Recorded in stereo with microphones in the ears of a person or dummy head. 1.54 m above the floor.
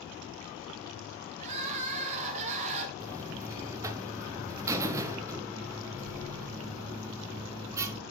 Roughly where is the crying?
Right.